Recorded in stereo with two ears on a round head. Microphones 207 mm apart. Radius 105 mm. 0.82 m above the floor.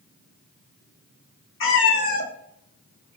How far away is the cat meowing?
About 0.9 m.